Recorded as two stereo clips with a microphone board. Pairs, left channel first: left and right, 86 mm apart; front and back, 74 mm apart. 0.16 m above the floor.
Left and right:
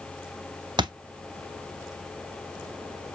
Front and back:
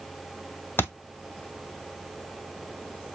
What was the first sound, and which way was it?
A thud, 60° right.